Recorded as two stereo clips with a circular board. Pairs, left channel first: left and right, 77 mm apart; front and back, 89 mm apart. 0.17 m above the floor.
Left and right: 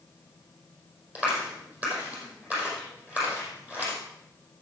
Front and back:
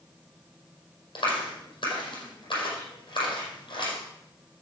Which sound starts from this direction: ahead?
A clap, at 1.1 s.